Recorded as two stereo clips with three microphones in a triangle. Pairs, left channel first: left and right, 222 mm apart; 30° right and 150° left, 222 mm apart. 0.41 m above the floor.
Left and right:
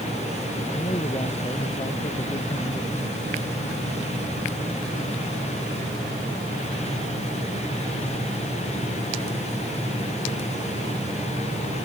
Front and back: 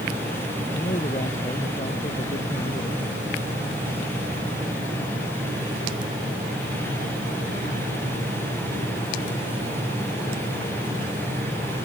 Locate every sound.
0.7 s a man speaking: 25° left